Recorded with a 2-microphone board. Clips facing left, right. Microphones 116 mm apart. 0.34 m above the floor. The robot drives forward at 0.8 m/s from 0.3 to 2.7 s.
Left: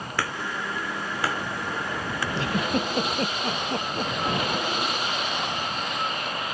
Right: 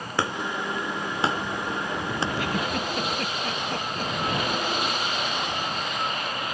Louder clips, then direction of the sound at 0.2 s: Right 3 dB; 25° right (ahead or behind).